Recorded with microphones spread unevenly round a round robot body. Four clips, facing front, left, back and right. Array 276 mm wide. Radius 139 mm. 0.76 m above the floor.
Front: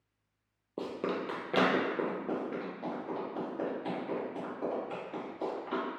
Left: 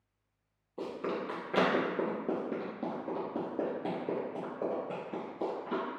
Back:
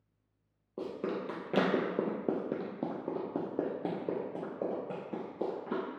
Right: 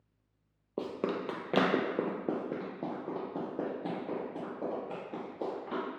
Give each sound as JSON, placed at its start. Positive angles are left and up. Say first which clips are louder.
{"t": 0.8, "sound": "running footsteps", "louder": "right 2 dB, front 1 dB", "azimuth_deg": -55, "distance_m": 0.8}